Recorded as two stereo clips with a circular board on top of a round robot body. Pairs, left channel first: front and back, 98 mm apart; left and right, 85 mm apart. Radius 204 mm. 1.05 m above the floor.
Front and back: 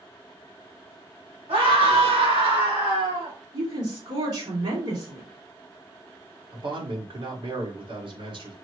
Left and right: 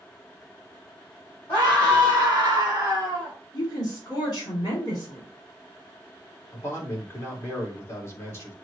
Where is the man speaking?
145° left, 1.8 m.